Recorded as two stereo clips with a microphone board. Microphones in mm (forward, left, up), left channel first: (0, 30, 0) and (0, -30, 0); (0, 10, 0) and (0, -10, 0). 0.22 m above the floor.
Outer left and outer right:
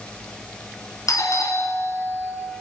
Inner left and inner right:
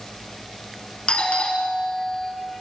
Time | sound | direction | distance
1.1 | a doorbell | 65° left (ahead or behind) | 4 m